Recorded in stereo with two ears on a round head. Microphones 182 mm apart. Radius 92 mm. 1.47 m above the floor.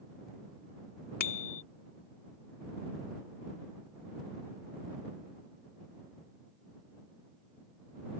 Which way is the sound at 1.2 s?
50° left (ahead or behind).